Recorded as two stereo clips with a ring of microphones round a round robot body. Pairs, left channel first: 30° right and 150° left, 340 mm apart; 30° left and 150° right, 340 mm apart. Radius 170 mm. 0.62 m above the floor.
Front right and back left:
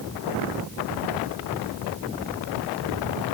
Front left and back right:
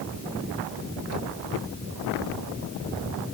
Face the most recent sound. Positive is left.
No sound to turn to.